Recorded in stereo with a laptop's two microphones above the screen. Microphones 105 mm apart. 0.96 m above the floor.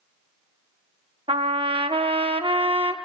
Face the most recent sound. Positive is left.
turn(degrees=-60)  # may be behind; listen again after turning